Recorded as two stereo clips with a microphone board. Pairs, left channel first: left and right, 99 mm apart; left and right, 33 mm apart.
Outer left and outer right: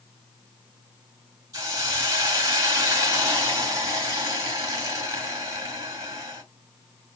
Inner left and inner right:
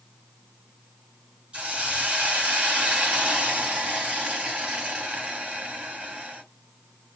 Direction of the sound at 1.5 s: 35° right (ahead or behind).